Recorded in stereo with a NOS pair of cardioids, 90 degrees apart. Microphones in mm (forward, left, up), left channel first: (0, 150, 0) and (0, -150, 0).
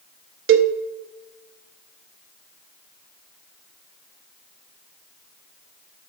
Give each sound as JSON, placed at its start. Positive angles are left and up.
{"t": 0.5, "sound": "a cowbell", "azimuth_deg": -50, "distance_m": 0.7}